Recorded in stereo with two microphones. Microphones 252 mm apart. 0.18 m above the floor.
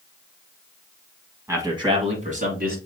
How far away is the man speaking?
About 1.2 m.